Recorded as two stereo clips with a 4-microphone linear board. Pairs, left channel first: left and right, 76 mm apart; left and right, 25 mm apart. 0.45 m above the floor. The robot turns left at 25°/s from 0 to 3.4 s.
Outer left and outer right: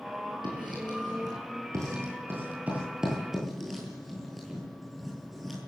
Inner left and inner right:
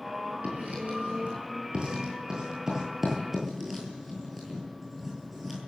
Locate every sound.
0.4 s writing: 75° right (ahead or behind), 10 m; by 5.6 s centre (ahead or behind), 10 m